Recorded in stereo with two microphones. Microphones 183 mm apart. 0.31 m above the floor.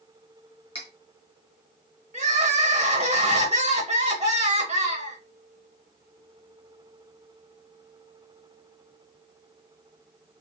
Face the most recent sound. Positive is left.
turn(degrees=-35)  # may be behind; listen again after turning